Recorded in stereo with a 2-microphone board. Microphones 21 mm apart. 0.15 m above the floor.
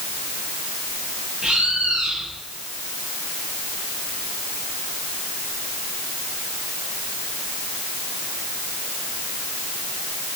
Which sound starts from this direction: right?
A bird, at 1.4 s.